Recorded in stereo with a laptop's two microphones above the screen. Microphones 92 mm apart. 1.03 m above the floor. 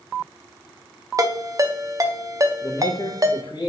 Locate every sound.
1.2 s a ringtone: 40° right (ahead or behind), 0.6 m
2.6 s a man speaking: 55° left (ahead or behind), 0.9 m